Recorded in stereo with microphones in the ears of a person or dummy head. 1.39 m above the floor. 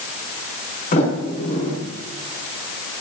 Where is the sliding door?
40° left (ahead or behind), 5 m.